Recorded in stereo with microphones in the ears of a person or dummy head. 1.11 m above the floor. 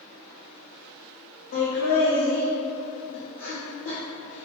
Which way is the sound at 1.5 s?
65° left (ahead or behind).